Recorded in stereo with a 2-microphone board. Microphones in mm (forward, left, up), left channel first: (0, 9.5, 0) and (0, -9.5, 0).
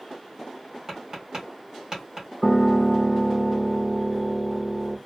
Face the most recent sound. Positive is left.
turn(degrees=10)  # may be behind; listen again after turning